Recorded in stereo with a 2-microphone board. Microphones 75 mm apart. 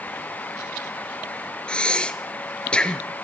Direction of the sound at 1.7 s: 15° left (ahead or behind).